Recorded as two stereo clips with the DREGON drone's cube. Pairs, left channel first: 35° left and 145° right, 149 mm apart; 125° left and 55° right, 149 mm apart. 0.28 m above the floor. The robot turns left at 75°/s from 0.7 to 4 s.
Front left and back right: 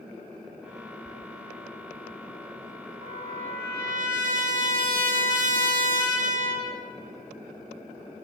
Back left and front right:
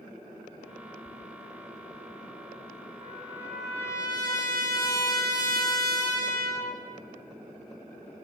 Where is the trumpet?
100° right, 0.6 m; by 6.8 s 175° right, 0.6 m.